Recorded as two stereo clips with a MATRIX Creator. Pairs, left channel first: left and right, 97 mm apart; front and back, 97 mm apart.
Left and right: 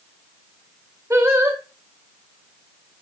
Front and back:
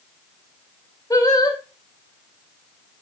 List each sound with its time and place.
1.1 s singing: 35° right, 1.9 m